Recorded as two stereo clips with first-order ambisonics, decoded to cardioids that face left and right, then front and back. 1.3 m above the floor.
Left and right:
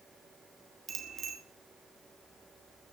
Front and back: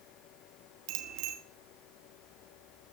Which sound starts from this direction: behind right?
A bicycle bell, at 0.9 s.